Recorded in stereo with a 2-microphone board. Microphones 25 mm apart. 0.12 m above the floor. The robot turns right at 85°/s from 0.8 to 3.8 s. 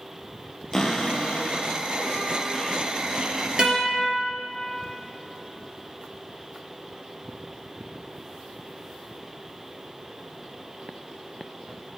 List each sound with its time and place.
0.7 s a cupboard door: 20° left, 1.2 m; by 3.5 s 110° right, 1.2 m
3.6 s a guitar: 35° right (ahead or behind), 3 m; by 4.1 s 20° right (ahead or behind), 3 m